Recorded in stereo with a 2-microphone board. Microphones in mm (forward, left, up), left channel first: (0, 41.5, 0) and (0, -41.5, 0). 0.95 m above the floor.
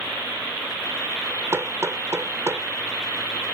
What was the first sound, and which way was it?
Hammering, 35° right (ahead or behind).